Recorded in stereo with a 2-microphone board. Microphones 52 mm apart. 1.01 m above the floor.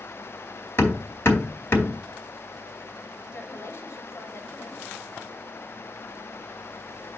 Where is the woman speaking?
60° left (ahead or behind), 3 m.